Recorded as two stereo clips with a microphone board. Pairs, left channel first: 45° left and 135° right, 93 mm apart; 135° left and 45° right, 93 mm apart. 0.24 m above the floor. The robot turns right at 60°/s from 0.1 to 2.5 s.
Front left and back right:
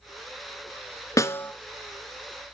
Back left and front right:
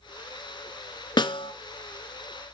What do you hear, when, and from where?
1.2 s a snare drum: 100° left, 0.7 m; by 1.5 s 120° left, 0.7 m